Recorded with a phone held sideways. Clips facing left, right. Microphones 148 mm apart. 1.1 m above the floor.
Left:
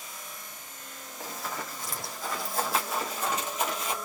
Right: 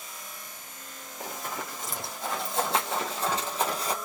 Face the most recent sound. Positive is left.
turn(degrees=-40)  # may be behind; listen again after turning